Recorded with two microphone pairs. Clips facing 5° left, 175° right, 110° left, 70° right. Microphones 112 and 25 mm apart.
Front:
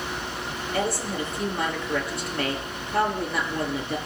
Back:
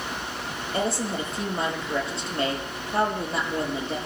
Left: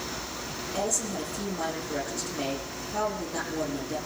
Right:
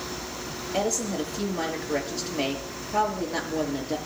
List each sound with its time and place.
0.7 s a woman speaking: 115° right, 6.5 m